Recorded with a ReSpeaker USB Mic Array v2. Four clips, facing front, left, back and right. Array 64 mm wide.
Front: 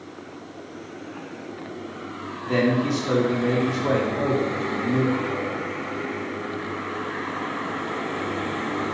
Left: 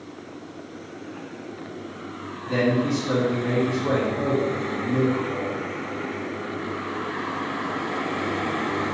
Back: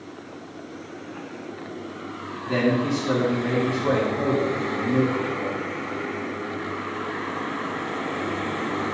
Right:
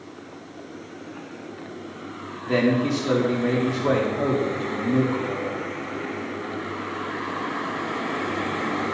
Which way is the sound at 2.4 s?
65° right.